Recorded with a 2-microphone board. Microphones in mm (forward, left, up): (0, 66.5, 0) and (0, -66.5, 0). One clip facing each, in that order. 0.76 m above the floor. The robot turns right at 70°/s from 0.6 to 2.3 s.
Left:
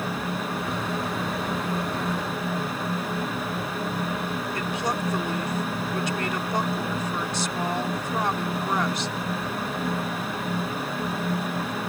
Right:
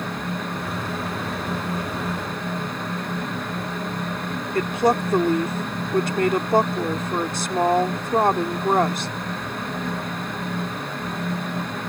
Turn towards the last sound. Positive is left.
turn(degrees=-50)  # may be behind; listen again after turning